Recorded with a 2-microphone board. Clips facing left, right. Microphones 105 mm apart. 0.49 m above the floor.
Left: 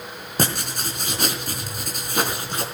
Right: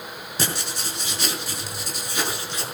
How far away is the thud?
No thud in this recording.